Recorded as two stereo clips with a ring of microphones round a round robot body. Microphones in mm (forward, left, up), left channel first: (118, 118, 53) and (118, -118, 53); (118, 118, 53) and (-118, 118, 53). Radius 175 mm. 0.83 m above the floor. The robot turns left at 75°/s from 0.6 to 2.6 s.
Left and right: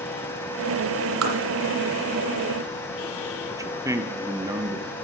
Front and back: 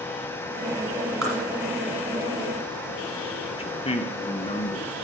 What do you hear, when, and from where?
1.2 s tapping: 90° right, 1.8 m; by 1.4 s 105° right, 1.8 m
3.5 s a man speaking: 30° right, 0.6 m